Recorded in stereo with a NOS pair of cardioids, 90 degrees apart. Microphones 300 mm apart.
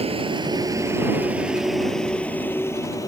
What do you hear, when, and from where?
0.0 s a vehicle: 20° right; by 3.1 s 10° left